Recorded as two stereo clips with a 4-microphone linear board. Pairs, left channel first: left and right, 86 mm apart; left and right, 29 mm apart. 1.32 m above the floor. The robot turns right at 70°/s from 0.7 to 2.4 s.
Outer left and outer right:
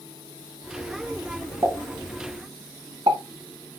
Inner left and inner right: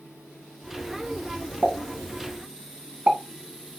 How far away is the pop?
About 2.5 m.